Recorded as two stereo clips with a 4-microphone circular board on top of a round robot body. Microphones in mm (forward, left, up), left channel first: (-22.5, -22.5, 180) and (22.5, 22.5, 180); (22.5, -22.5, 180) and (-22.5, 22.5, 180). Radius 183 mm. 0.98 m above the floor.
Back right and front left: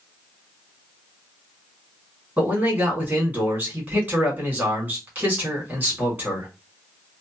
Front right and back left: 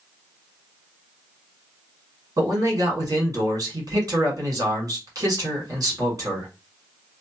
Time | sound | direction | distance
2.4 | a man speaking | 105° left | 2 m